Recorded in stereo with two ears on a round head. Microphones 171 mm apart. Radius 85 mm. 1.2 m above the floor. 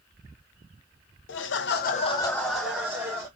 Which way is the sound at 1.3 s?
65° left (ahead or behind).